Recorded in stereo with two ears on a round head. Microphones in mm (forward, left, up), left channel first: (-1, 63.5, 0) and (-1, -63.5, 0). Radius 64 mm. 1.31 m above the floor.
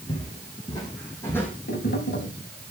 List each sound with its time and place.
0.1 s footsteps: 35° left (ahead or behind), 4.5 m; by 1.5 s 10° left (ahead or behind), 3 m
1.7 s tapping: 75° left (ahead or behind), 3 m